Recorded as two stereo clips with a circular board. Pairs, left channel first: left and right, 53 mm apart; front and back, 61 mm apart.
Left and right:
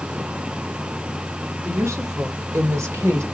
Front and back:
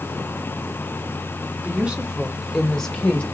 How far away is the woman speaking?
About 1.5 m.